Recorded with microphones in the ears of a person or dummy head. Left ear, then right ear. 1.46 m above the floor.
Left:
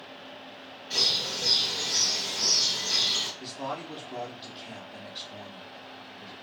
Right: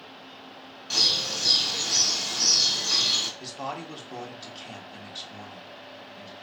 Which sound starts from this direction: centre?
A man speaking, at 3.4 s.